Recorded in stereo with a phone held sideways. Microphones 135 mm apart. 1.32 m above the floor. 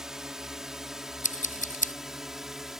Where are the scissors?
75° left (ahead or behind).